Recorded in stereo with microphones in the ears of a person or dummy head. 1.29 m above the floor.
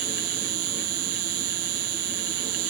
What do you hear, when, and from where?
0.0 s an insect: 85° right